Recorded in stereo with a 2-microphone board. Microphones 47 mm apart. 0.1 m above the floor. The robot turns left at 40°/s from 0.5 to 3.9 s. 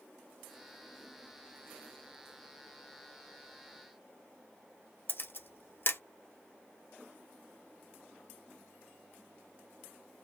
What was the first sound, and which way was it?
A camera shutter, 50° left (ahead or behind).